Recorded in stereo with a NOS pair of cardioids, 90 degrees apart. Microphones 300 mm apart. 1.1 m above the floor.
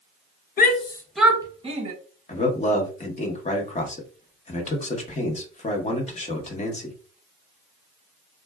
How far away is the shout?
About 0.6 m.